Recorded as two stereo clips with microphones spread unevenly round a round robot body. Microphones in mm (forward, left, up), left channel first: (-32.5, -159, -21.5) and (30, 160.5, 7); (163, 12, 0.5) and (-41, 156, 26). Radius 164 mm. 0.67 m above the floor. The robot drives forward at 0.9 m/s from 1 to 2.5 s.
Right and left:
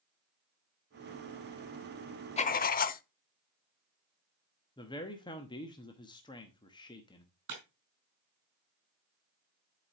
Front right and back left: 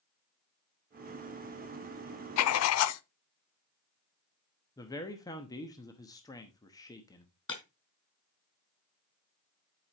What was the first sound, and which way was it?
Writing, 30° right.